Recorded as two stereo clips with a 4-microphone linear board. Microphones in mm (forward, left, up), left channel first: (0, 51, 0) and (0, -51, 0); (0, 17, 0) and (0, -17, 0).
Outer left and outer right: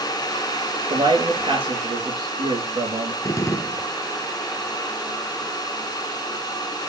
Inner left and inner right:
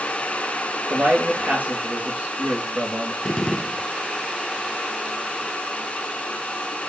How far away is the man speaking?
About 7 m.